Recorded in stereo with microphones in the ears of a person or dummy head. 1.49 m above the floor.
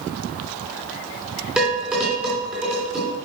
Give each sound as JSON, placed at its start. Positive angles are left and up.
{"t": 1.6, "sound": "dishes clattering", "side_deg": -10, "distance_m": 3.5}